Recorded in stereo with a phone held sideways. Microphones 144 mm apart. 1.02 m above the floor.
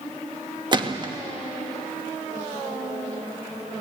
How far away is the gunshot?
About 1.2 m.